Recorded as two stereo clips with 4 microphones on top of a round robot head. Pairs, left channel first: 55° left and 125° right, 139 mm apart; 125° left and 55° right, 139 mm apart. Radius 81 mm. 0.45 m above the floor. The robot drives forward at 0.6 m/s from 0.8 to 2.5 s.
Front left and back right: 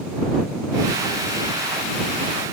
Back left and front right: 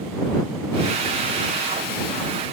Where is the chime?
I don't hear a chime.